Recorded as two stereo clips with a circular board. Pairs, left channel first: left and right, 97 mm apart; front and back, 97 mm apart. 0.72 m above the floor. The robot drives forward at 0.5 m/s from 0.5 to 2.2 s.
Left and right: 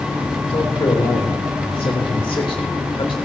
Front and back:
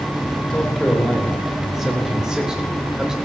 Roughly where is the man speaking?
Left.